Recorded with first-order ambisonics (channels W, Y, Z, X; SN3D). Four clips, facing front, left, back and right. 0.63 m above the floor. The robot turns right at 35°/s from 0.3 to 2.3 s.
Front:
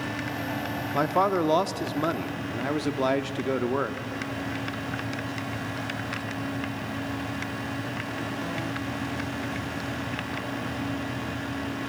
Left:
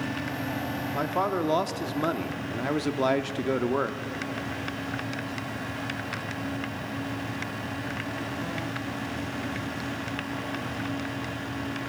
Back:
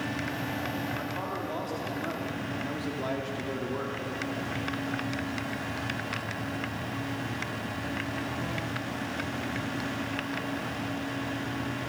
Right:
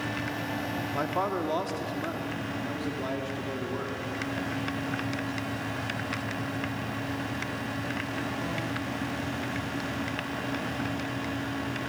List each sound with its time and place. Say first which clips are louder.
0.9 s a man speaking: left 3 dB, front 10 dB; straight ahead, 1.0 m; by 4.0 s 50° left, 1.0 m